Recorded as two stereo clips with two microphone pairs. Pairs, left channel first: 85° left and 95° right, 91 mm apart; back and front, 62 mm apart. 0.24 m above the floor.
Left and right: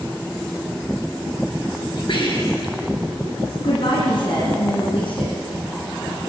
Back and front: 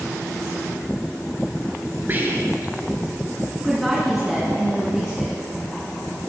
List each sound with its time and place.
2.1 s whispering: 60° left, 3.5 m
3.6 s a woman speaking: 85° left, 2.5 m